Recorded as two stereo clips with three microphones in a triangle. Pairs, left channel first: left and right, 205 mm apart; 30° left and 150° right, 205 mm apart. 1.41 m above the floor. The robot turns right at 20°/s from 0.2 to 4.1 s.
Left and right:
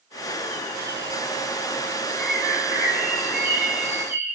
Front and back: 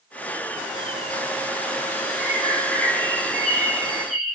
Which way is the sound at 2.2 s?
45° left.